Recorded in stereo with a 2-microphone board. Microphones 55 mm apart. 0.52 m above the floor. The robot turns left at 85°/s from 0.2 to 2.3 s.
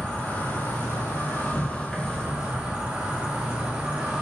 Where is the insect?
160° left, 0.9 m; by 4.2 s 20° right, 0.9 m.